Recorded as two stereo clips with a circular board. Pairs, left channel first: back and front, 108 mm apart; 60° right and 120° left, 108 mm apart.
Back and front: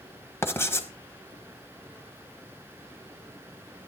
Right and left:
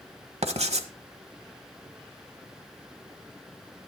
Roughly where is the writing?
Behind left.